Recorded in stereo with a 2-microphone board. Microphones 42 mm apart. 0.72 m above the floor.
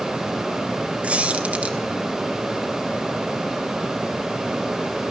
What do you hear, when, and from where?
1.0 s a squeak: 30° right (ahead or behind), 1.4 m